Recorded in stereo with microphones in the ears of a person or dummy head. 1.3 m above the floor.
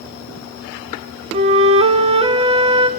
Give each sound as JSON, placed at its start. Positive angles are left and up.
{"t": 1.3, "sound": "a flute", "side_deg": -35, "distance_m": 1.7}